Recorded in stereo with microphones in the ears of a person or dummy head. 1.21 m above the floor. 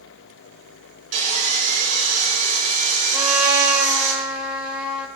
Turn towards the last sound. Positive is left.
turn(degrees=-5)  # may be behind; listen again after turning